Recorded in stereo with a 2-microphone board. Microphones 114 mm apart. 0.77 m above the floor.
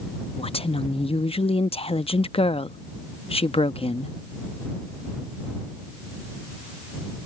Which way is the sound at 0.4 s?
55° left (ahead or behind).